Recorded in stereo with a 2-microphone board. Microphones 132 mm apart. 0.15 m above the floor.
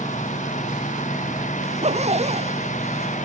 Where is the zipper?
60° right (ahead or behind).